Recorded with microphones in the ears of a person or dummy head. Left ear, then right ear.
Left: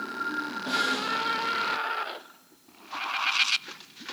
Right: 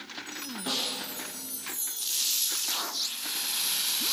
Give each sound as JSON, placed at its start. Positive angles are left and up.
{"t": 0.7, "sound": "a snare drum", "side_deg": -55, "distance_m": 1.8}